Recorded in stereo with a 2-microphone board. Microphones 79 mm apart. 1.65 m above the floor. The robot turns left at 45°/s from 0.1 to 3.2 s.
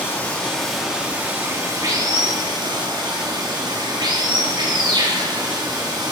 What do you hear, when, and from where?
0.0 s running water: 25° left, 3.5 m; by 6.1 s 115° right, 3.5 m